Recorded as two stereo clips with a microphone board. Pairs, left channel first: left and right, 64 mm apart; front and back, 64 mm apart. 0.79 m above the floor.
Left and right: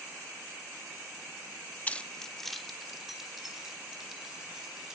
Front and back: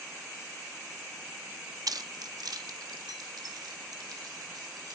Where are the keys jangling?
155° left, 0.5 m; by 5.0 s 170° right, 3.5 m.